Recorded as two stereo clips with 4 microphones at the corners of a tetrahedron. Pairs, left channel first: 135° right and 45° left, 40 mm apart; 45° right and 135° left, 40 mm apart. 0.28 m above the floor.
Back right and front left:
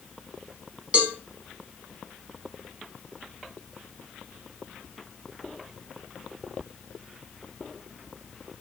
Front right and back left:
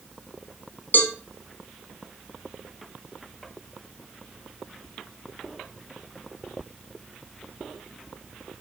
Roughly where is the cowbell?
Ahead.